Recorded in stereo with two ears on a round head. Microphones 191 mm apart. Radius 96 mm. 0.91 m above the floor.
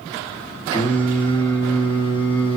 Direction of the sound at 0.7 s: 25° left (ahead or behind).